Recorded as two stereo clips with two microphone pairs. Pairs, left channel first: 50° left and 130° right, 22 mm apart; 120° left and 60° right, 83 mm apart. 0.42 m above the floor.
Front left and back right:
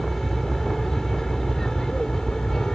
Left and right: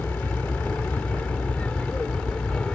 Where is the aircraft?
110° left; by 2.7 s 60° left.